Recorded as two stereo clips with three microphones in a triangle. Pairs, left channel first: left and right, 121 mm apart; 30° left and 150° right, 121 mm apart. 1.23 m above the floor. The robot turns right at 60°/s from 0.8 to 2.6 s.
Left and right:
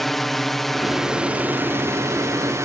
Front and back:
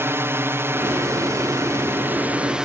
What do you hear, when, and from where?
0.0 s a drone: 175° left; by 2.7 s 75° right